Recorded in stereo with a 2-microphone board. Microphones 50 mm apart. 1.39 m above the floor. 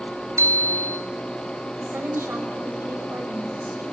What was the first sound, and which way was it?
A bicycle bell, 60° right (ahead or behind).